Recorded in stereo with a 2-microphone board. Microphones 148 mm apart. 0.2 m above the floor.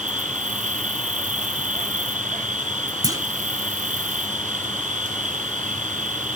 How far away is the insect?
About 1.8 m.